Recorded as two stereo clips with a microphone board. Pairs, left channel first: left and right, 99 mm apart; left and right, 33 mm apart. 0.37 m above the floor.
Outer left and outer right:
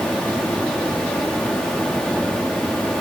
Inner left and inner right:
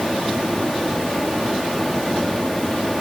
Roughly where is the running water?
Centre.